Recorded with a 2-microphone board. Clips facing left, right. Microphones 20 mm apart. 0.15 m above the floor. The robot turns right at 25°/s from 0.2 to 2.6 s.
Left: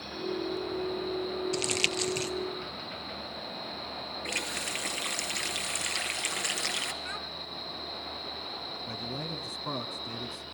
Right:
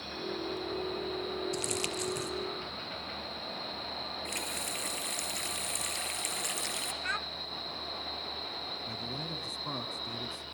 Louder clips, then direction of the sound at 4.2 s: Left 7 dB; 30° left (ahead or behind).